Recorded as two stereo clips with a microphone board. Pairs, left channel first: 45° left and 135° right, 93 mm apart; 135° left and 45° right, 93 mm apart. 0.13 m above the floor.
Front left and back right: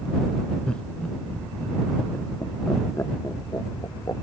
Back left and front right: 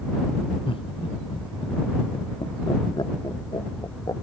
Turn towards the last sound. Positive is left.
turn(degrees=90)